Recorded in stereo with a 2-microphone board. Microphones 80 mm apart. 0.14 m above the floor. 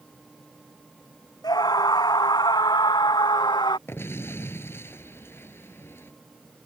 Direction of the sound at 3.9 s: 30° left (ahead or behind).